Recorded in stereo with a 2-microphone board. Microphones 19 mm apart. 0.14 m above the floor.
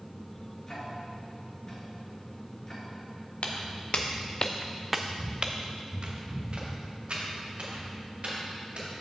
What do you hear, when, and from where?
0.7 s ticking: 25° left (ahead or behind), 2.5 m
3.4 s footsteps: 75° left (ahead or behind), 1.6 m; by 8.9 s 75° right (ahead or behind), 4.5 m